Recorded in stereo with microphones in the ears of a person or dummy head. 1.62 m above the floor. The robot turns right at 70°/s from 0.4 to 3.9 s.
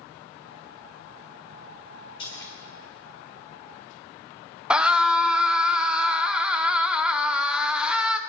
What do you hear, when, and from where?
2.2 s a splash: 40° left (ahead or behind), 3 m; by 2.5 s 15° left (ahead or behind), 3 m
4.7 s a scream: 5° right (ahead or behind), 0.8 m